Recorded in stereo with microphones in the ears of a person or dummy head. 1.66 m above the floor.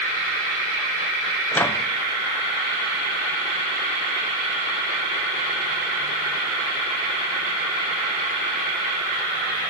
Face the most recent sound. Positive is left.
turn(degrees=15)  # may be behind; listen again after turning